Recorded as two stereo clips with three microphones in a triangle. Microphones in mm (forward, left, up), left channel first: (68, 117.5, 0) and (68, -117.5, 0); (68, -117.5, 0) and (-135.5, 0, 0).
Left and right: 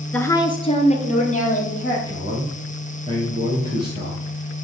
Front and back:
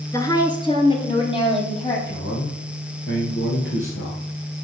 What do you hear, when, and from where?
0.1 s a woman speaking: 15° left, 1.1 m; by 2.0 s 35° left, 3.5 m
2.1 s a man speaking: 25° right, 2.5 m